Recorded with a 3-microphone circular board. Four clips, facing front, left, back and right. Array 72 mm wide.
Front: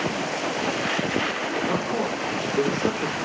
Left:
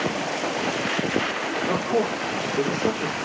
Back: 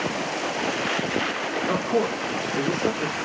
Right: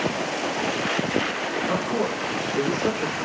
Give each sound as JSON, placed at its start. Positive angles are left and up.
{"t": 1.7, "sound": "a man speaking", "azimuth_deg": 180, "distance_m": 2.5}